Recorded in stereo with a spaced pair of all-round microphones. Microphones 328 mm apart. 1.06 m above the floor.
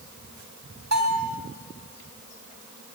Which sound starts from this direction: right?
A bell, at 0.9 s.